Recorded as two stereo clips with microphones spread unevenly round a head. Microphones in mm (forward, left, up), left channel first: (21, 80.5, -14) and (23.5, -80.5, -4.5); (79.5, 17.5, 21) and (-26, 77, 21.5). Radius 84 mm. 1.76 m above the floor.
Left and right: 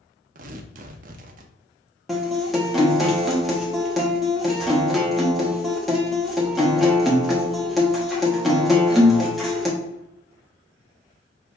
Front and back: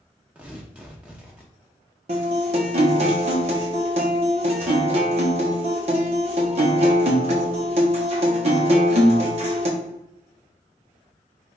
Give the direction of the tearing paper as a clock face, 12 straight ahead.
4 o'clock.